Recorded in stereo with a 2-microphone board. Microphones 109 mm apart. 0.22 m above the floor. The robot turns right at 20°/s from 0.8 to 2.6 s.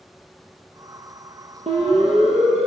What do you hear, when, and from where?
1.7 s a siren: 80° right, 6 m; by 2.7 s 75° right (ahead or behind), 6.5 m